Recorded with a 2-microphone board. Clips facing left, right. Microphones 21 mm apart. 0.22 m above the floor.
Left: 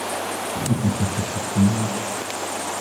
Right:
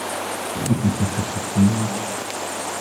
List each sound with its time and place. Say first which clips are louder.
0.6 s laughter: right 2 dB; 50° right (ahead or behind), 2 m